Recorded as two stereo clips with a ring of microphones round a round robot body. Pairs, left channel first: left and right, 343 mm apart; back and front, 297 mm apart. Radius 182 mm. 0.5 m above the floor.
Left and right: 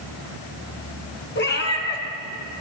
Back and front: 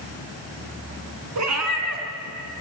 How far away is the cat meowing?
About 3.5 m.